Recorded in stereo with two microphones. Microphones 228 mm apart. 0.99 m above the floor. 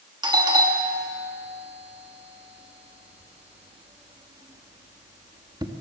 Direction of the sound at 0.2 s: 20° right (ahead or behind).